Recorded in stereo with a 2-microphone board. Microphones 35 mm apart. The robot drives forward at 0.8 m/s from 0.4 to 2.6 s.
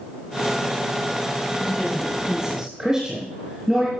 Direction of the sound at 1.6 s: 10° right (ahead or behind).